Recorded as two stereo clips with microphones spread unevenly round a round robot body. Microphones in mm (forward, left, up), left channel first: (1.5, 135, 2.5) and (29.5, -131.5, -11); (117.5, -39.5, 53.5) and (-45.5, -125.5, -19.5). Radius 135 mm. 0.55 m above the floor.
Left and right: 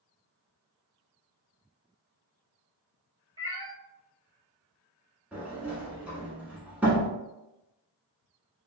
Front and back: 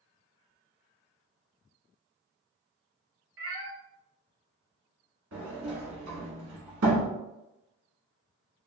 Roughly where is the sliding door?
Behind.